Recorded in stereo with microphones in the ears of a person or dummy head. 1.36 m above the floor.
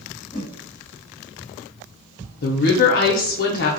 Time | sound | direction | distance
0.3 | a whoosh | 20° left (ahead or behind) | 0.9 m
2.4 | a woman speaking | 55° left (ahead or behind) | 0.6 m